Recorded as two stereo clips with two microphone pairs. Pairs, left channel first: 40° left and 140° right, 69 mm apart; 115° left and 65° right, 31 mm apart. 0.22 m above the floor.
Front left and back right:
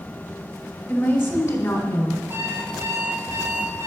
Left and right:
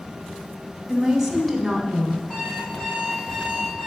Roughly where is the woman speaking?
Ahead.